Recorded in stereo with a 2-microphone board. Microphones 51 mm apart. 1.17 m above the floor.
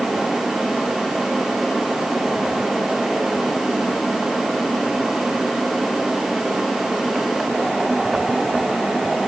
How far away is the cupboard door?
I don't hear a cupboard door.